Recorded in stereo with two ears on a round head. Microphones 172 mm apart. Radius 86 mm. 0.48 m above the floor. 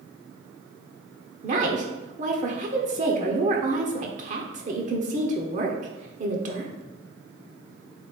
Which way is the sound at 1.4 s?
40° right (ahead or behind).